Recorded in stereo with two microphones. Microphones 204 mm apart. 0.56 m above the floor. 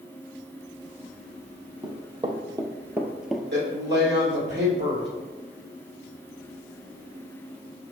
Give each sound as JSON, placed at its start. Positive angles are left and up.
{"t": 1.8, "sound": "running footsteps", "side_deg": -25, "distance_m": 0.9}
{"t": 3.5, "sound": "a woman speaking", "side_deg": -55, "distance_m": 2.0}